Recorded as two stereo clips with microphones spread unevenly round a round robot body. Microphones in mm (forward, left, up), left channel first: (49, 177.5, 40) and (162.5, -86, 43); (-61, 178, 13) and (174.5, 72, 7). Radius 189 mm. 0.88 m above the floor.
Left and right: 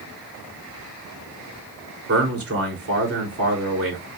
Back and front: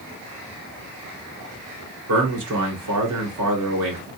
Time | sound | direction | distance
2.1 | a man speaking | 25° right | 3 m